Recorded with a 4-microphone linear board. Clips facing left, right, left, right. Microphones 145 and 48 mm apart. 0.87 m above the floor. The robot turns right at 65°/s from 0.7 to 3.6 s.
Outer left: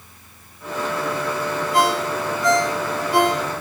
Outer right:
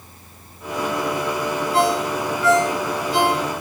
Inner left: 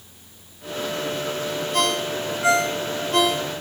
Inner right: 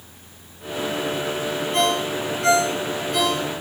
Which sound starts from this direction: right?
A ringtone, at 1.7 s.